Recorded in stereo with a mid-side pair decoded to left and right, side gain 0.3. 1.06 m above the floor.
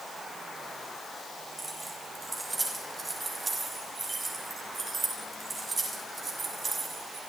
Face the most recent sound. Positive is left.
turn(degrees=-55)